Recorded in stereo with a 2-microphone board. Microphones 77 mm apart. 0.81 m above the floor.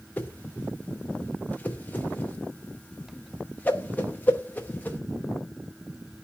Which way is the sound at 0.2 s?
20° left (ahead or behind).